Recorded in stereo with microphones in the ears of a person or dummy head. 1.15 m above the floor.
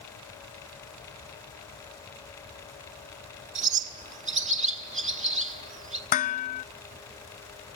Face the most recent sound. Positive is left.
turn(degrees=40)  # may be behind; listen again after turning